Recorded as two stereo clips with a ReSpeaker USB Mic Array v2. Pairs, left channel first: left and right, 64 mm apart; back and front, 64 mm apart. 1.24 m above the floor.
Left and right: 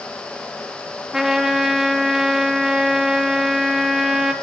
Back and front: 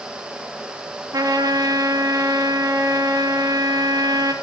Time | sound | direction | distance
1.1 | a trumpet | 5° right | 2.5 m